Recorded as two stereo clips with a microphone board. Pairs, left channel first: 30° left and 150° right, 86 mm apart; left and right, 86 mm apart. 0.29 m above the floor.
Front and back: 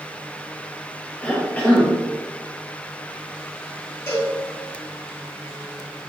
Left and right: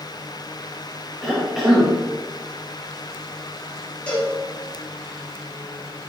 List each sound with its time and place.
1.2 s a cough: 5° right, 1.0 m
4.1 s a cowbell: 15° left, 1.9 m